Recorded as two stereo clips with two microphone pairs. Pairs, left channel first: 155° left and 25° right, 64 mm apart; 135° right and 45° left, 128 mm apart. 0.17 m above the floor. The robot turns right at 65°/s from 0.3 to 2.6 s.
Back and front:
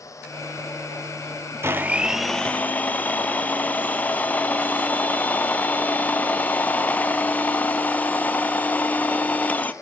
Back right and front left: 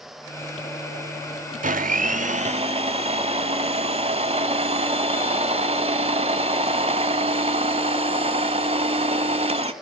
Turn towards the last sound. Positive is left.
turn(degrees=90)